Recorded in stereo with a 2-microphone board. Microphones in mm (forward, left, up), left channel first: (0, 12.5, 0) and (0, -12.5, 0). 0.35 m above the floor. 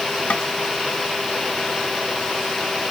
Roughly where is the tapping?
Left.